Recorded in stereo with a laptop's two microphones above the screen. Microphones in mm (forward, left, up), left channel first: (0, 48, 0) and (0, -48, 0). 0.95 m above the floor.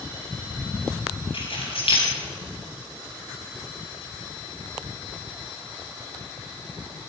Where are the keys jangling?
70° left (ahead or behind), 5 m.